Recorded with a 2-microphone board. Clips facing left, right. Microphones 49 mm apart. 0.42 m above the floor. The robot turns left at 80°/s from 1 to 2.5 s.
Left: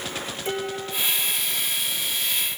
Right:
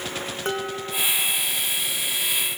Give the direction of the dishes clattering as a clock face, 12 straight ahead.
4 o'clock.